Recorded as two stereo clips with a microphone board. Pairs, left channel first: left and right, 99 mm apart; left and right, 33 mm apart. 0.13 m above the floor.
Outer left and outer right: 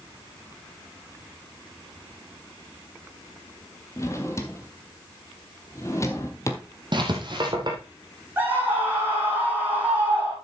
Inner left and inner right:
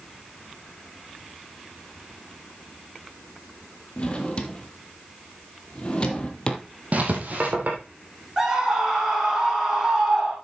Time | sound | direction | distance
4.0 | a drawer | 30° left (ahead or behind) | 1.4 m
6.9 | writing | 50° right (ahead or behind) | 2.5 m
8.4 | a scream | 20° right (ahead or behind) | 5.5 m